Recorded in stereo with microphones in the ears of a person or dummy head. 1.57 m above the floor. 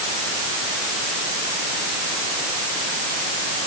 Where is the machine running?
No machine running in this recording.